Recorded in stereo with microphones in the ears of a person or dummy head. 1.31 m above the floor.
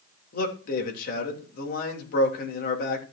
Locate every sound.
0.3 s a man speaking: 60° left (ahead or behind), 2.5 m